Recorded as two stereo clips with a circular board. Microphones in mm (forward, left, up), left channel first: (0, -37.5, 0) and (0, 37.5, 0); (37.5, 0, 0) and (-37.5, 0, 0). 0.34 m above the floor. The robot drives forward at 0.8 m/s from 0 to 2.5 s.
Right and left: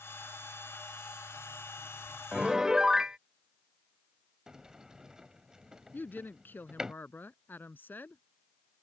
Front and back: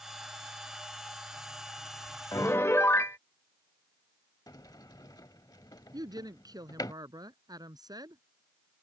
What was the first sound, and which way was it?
A piano, 10° left.